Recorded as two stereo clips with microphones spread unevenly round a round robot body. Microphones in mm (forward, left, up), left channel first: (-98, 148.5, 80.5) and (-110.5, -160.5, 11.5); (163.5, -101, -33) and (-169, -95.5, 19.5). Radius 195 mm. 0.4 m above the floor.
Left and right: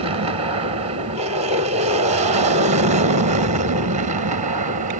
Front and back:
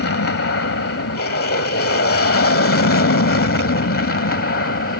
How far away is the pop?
No pop in this recording.